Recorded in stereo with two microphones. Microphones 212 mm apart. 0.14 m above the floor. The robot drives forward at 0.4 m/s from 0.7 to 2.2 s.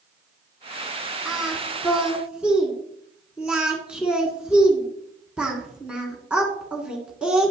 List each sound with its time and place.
1.2 s singing: 5° right (ahead or behind), 1.6 m